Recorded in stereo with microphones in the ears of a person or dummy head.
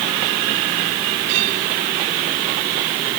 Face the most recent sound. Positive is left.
No sound to turn to.